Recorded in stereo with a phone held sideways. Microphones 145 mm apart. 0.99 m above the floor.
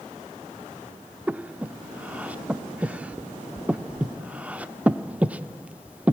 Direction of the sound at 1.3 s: 10° right (ahead or behind).